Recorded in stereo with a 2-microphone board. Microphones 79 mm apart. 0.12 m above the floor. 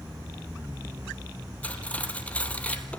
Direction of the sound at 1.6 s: 15° left (ahead or behind).